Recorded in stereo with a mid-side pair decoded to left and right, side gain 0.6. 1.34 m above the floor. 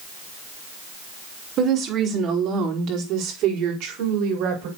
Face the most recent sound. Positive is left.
turn(degrees=-80)